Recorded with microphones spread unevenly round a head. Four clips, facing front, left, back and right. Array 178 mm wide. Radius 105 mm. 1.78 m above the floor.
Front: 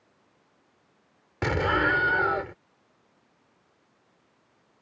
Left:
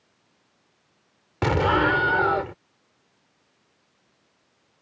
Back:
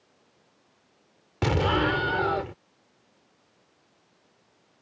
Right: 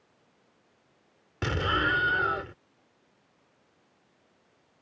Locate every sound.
1.4 s an explosion: 75° left